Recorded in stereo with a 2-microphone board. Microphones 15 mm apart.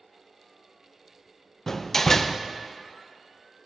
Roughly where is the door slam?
Left.